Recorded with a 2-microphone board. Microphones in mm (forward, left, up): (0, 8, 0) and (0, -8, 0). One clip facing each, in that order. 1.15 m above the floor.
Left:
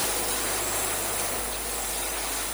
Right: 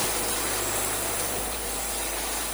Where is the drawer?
I don't hear a drawer.